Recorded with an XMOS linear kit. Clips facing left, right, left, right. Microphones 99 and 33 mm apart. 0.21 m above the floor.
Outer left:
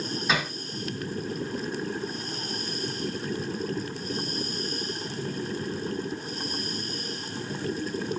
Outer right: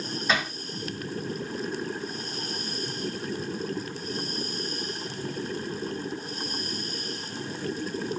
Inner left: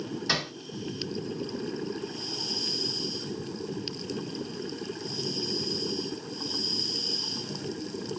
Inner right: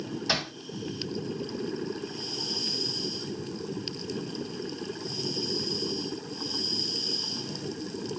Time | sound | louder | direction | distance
0.3 | hammering | outer right 1 dB, even | 5° left (ahead or behind) | 2.5 m